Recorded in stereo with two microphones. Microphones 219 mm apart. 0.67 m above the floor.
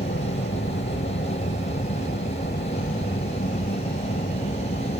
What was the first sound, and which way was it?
An aircraft, 55° left (ahead or behind).